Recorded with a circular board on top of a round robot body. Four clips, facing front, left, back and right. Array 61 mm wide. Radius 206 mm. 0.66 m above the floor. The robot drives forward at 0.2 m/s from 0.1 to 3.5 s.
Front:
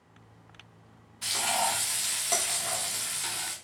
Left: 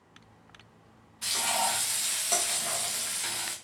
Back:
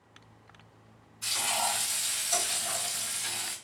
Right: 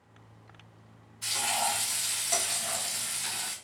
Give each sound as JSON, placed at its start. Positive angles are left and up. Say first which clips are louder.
{"t": 1.2, "sound": "frying", "louder": "left 1 dB, front 3 dB", "azimuth_deg": 35, "distance_m": 0.9}